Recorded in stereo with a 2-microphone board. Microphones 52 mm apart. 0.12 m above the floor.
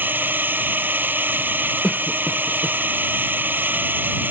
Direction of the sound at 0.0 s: 35° right (ahead or behind).